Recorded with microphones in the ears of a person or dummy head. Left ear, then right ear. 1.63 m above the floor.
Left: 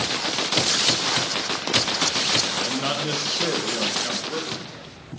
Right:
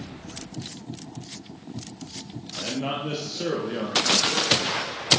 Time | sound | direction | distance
2.6 | a man speaking | 60° left (ahead or behind) | 1.5 m